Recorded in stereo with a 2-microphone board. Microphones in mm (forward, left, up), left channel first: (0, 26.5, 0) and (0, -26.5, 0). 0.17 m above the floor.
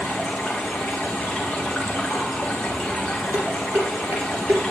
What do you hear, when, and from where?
0.0 s running water: 15° left (ahead or behind), 1.8 m
3.3 s dishes clattering: 60° right (ahead or behind), 2 m